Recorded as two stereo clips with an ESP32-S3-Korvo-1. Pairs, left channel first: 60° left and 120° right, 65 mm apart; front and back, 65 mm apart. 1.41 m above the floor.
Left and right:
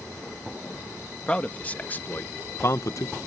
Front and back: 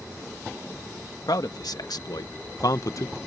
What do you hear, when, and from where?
1.3 s a man speaking: 10° right; by 3.2 s 40° left